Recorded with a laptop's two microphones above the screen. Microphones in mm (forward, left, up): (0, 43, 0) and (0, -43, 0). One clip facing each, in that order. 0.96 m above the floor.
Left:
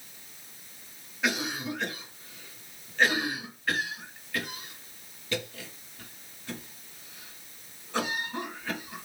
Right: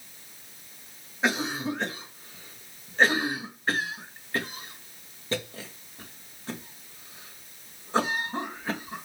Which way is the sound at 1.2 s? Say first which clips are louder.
Right 3 dB; 35° right (ahead or behind).